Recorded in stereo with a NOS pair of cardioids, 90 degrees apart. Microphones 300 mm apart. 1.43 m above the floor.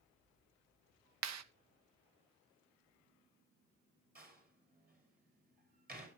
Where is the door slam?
30° right, 5.5 m.